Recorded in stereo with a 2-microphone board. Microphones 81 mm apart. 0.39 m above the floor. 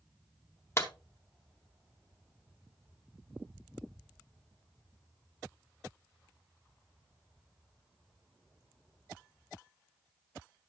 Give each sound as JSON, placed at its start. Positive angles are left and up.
{"t": 0.8, "sound": "a clap", "side_deg": 35, "distance_m": 1.2}